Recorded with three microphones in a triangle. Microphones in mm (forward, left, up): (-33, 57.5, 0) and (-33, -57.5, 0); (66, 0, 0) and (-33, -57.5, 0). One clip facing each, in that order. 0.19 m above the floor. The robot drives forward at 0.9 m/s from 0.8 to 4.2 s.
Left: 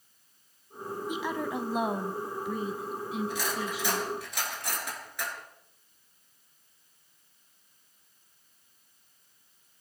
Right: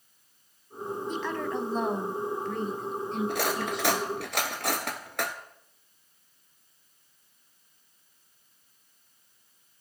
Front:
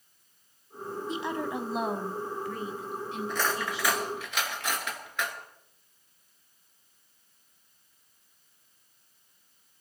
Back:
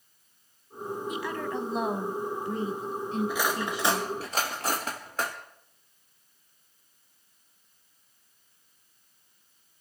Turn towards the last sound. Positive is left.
turn(degrees=-100)